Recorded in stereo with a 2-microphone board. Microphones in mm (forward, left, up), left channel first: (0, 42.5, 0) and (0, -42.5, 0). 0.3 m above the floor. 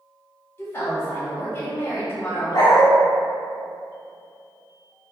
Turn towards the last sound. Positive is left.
turn(degrees=50)  # may be behind; listen again after turning